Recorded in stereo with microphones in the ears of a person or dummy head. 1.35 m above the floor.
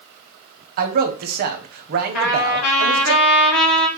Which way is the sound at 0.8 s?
55° right (ahead or behind).